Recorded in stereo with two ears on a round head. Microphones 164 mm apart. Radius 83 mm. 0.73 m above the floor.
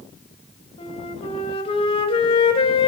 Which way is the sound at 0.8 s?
30° left (ahead or behind).